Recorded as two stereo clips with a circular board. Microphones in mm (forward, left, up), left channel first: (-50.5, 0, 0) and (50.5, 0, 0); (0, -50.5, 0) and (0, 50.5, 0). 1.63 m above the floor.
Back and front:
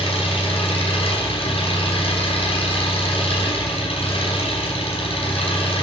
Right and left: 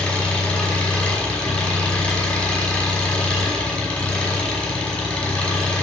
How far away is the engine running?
About 5.5 m.